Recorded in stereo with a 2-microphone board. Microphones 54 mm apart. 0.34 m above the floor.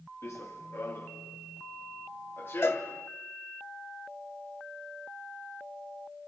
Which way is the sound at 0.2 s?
55° left (ahead or behind).